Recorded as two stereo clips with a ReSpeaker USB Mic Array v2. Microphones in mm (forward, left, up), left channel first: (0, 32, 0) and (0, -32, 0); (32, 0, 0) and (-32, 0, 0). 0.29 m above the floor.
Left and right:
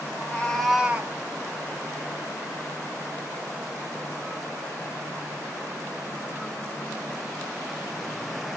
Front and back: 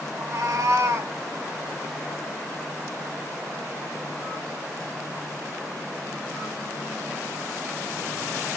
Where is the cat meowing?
150° left, 0.8 m; by 1.1 s 140° right, 0.6 m.